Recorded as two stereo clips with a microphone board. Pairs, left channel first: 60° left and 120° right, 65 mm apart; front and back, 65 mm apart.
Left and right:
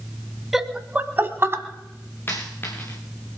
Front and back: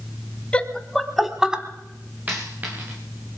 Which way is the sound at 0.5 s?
40° right.